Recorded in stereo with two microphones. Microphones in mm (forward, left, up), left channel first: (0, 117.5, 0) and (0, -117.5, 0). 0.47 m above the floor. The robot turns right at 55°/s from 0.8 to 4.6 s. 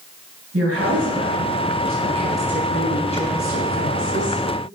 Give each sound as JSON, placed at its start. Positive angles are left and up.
{"t": 0.5, "sound": "a woman speaking", "azimuth_deg": -100, "distance_m": 3.5}